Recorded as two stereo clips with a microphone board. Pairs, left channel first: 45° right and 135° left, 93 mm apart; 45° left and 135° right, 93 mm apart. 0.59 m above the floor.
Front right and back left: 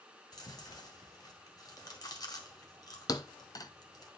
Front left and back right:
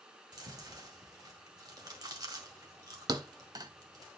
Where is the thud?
90° right, 0.8 m.